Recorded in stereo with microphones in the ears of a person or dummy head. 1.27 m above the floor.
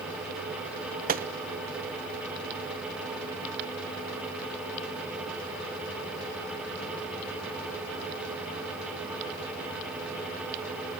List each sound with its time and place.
1.1 s a gunshot: 45° right (ahead or behind), 0.8 m